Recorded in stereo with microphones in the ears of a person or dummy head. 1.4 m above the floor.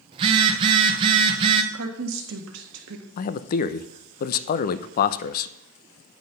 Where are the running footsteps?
I don't hear running footsteps.